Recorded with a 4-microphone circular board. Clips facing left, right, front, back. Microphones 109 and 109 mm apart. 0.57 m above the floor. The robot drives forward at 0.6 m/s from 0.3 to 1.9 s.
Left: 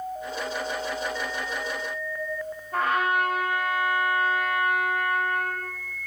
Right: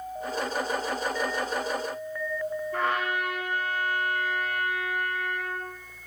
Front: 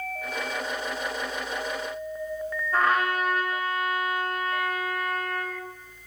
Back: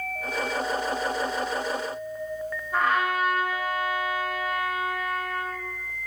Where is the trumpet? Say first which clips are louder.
Left 6 dB, even; 95° left, 1.0 m.